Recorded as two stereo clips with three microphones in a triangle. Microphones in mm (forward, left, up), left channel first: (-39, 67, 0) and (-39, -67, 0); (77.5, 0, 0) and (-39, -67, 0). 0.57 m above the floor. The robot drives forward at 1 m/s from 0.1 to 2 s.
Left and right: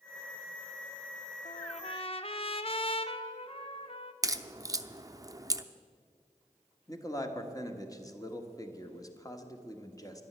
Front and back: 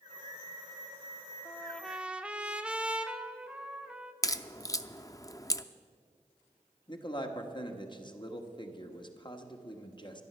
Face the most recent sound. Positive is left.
turn(degrees=45)